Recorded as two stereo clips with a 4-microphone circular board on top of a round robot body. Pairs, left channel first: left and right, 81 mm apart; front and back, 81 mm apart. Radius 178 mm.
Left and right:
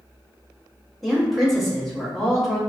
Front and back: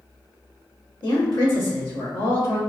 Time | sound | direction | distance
1.0 | a woman speaking | straight ahead | 1.7 m